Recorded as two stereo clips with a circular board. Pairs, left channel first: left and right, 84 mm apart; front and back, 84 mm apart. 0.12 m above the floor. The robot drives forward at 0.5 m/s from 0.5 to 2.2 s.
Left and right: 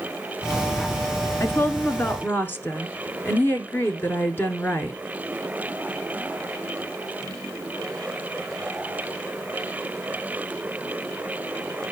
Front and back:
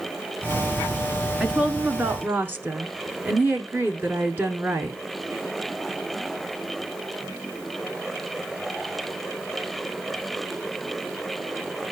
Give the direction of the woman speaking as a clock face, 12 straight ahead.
9 o'clock.